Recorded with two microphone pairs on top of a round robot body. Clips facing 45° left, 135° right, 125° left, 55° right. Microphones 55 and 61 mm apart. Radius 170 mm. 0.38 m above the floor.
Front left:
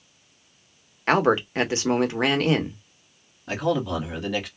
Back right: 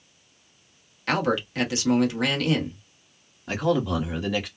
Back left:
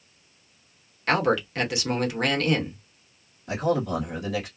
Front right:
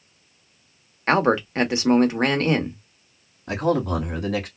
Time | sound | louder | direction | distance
1.1 | a man speaking | front left 4 dB, front right 4 dB | 5° left | 1.1 m
3.5 | a man speaking | back right 1 dB, front right 3 dB | 45° right | 1.4 m